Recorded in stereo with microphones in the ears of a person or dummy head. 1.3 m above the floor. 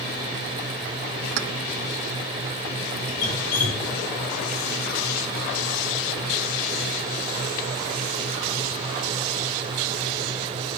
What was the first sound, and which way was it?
Keys jangling, 55° right (ahead or behind).